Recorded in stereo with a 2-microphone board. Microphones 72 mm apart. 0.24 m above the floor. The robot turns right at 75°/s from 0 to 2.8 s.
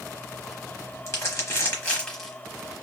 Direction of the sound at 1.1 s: 40° left (ahead or behind).